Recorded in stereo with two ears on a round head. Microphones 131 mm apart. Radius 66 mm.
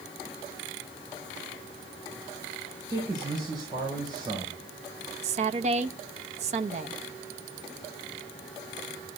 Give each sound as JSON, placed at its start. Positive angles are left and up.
{"t": 2.9, "sound": "a man speaking", "side_deg": -25, "distance_m": 5.0}
{"t": 5.2, "sound": "a woman speaking", "side_deg": -50, "distance_m": 0.9}